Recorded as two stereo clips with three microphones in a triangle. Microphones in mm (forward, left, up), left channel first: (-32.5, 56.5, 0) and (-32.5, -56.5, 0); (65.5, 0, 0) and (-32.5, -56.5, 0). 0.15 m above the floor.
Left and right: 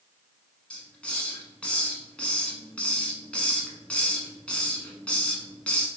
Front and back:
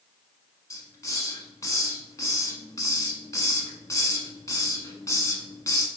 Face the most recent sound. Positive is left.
turn(degrees=20)